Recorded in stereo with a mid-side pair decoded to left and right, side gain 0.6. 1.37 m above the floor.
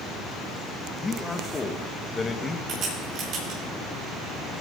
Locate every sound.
1.0 s a man speaking: 20° left, 1.8 m
2.7 s a crack: 55° right, 8.5 m